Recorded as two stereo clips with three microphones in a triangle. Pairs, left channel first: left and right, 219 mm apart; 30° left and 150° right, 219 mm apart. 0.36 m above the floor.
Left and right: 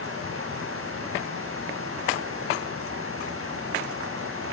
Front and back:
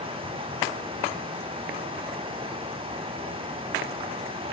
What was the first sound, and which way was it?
Running water, 85° right.